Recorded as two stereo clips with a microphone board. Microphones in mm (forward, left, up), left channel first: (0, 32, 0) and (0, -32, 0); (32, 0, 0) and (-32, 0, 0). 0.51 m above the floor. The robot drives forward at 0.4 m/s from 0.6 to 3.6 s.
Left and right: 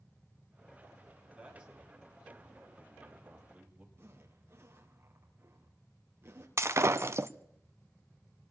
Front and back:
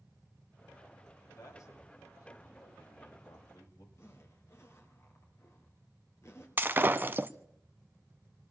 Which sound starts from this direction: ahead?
A man speaking, at 1.4 s.